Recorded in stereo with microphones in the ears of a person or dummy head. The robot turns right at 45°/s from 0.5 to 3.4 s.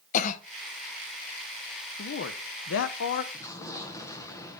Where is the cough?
40° left (ahead or behind), 0.8 m.